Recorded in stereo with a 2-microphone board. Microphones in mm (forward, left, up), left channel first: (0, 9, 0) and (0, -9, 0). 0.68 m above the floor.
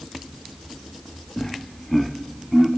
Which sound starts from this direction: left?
Laughter, at 1.4 s.